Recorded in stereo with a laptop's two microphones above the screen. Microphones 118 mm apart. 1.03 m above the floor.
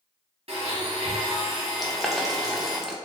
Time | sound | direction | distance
0.5 | a blender | 60° right (ahead or behind) | 0.8 m
1.8 | boiling | centre (ahead or behind) | 0.6 m